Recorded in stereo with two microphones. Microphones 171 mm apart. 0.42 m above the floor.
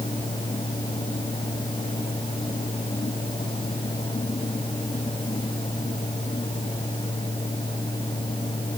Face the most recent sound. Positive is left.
No sound to turn to.